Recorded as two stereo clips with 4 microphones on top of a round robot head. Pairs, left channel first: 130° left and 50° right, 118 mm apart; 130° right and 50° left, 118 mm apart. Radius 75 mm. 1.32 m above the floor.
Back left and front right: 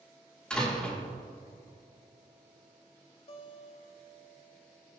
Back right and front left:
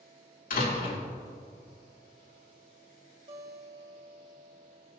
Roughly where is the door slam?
Behind right.